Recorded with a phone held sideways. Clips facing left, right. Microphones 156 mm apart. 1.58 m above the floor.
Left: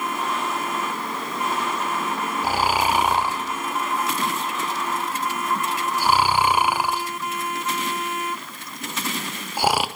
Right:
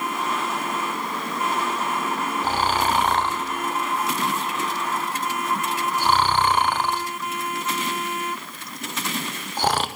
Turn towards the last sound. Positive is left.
turn(degrees=10)  # may be behind; listen again after turning